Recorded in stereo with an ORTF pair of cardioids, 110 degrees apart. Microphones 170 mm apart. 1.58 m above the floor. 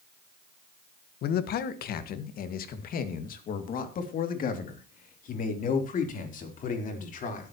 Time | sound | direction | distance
1.2 | a man speaking | 70° left | 1.5 m